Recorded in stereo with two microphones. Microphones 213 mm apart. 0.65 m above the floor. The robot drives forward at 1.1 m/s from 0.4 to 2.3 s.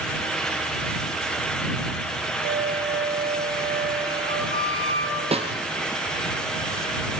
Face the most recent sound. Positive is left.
turn(degrees=-30)  # may be behind; listen again after turning